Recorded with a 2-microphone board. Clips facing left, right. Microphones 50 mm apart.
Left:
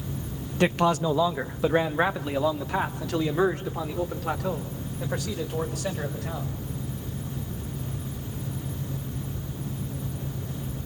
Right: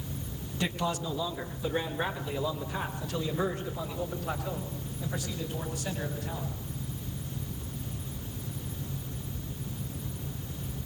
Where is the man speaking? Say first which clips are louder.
Left 9 dB; 55° left (ahead or behind), 1.3 m; by 6.5 s 65° left (ahead or behind), 7 m.